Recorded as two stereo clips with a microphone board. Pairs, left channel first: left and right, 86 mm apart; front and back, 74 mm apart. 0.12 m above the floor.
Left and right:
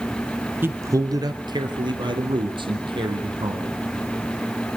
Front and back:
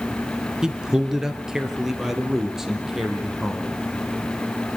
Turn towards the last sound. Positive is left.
turn(degrees=-95)